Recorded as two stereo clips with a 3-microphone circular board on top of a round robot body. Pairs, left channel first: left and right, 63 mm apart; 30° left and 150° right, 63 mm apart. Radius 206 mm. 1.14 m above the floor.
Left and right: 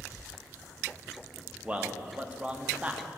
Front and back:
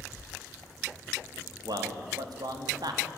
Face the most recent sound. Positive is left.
turn(degrees=-160)